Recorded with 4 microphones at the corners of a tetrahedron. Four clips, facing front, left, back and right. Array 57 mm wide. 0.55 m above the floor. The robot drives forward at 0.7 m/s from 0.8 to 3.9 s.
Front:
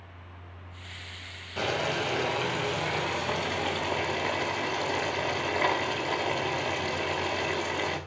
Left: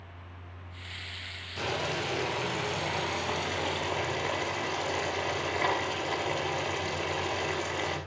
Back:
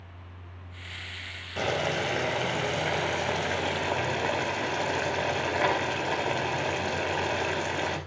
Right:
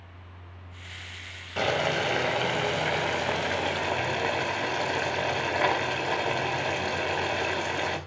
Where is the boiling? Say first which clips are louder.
Right 6 dB, back 1 dB; 100° right, 3 m; by 8.0 s 125° right, 4 m.